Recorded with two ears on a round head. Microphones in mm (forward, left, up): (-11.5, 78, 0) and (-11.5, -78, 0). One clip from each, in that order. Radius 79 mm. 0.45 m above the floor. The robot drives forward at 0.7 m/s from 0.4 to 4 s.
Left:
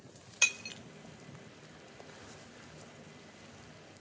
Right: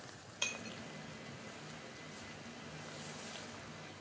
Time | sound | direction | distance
0.4 | breaking glass | 55° left (ahead or behind) | 0.8 m